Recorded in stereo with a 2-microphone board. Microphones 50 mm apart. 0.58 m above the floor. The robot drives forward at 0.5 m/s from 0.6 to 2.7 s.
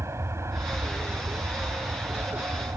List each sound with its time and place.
0.0 s an aircraft: 65° right (ahead or behind)